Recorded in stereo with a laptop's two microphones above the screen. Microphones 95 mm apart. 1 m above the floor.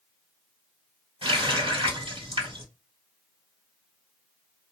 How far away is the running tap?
About 1.5 m.